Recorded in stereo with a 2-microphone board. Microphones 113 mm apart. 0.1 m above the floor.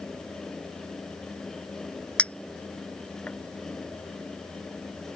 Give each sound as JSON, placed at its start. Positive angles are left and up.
{"t": 2.2, "sound": "a clink", "side_deg": 10}